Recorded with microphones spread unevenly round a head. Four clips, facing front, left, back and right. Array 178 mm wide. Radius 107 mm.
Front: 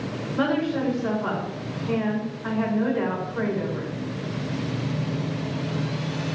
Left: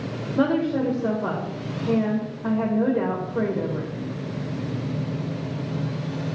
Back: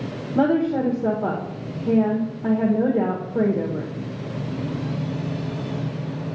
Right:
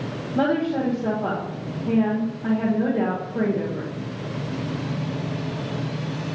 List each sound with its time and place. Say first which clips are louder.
0.3 s a woman speaking: even, back 5 dB; 175° left, 1.3 m